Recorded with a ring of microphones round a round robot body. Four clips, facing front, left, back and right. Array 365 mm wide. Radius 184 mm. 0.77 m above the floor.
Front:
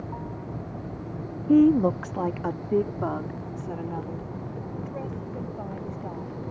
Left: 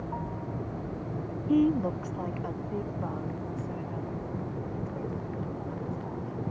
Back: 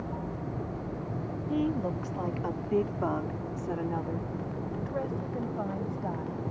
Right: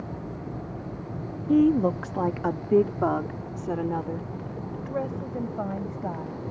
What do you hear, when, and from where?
1.5 s a woman speaking: 15° right; by 6.4 s 105° right